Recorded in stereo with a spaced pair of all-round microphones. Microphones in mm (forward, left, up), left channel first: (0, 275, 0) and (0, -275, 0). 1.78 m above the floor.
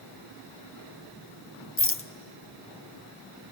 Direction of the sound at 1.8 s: 25° left (ahead or behind).